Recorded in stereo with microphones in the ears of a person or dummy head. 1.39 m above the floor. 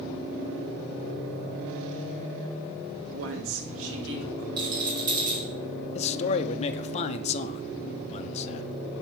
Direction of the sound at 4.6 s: 25° right (ahead or behind).